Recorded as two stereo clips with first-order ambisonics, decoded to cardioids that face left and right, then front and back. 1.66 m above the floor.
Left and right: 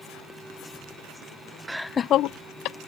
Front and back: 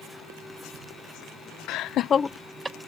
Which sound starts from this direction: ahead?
Laughter, at 1.7 s.